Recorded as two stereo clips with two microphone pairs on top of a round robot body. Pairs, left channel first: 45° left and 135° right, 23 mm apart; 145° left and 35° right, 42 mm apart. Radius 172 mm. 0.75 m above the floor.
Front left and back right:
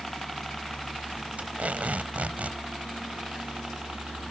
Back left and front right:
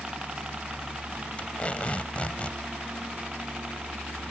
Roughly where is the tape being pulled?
Behind right.